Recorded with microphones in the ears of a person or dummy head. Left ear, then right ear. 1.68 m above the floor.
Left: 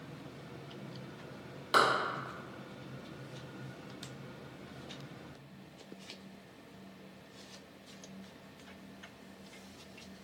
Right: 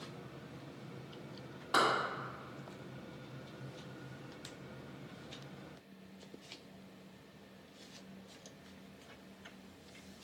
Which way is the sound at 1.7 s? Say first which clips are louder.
Left 4 dB; 15° left (ahead or behind).